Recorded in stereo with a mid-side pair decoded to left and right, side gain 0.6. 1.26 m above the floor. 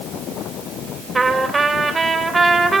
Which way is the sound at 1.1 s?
25° right.